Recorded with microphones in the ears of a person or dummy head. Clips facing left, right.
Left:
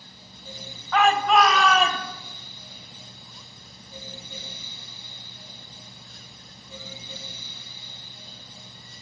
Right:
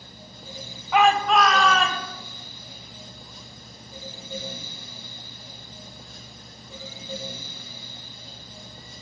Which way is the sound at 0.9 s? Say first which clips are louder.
Even; 10° right (ahead or behind).